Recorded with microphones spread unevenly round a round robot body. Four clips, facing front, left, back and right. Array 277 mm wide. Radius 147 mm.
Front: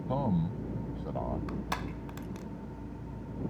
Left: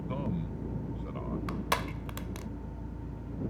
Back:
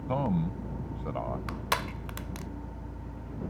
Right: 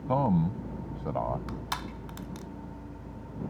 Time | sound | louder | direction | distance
0.1 | a man speaking | right 11 dB, back 2 dB | 110° right | ?
1.5 | crushing | left 4 dB, back 4 dB | 120° left | ?